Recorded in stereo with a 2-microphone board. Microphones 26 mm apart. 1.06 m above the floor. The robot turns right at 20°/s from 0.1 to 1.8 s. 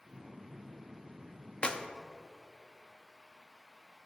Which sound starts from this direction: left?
A clap, at 1.6 s.